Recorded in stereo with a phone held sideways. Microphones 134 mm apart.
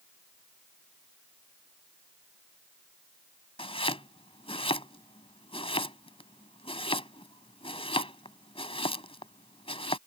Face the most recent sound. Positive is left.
turn(degrees=45)  # may be behind; listen again after turning